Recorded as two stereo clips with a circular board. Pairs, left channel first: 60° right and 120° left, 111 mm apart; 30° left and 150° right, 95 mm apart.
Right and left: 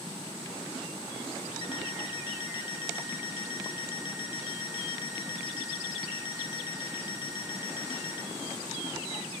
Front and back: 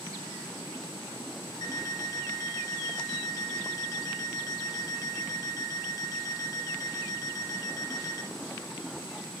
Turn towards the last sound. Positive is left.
turn(degrees=-15)